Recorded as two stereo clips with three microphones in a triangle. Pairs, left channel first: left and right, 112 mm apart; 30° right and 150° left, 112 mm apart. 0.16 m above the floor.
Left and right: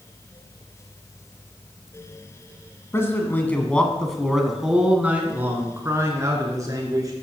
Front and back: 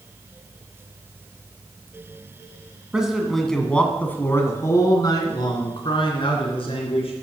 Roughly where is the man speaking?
Left.